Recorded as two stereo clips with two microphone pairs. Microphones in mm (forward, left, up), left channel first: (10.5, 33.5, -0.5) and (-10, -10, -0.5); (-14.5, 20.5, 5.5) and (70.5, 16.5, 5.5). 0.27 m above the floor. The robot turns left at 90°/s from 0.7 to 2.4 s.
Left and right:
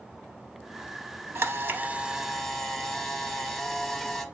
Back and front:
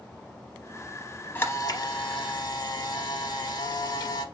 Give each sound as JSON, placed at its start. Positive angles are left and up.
{"t": 1.4, "sound": "a camera shutter", "azimuth_deg": -115, "distance_m": 0.6}